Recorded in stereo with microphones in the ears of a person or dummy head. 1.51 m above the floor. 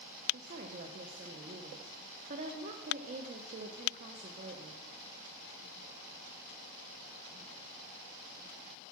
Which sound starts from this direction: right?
A woman speaking, at 0.3 s.